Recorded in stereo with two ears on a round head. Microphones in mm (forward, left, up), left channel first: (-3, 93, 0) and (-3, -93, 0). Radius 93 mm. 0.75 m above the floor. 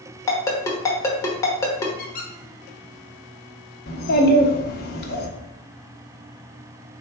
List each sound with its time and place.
0.3 s a ringtone: 15° left (ahead or behind), 1.0 m
2.0 s a squeak: 45° left (ahead or behind), 1.4 m
3.9 s a child speaking: 50° left (ahead or behind), 0.9 m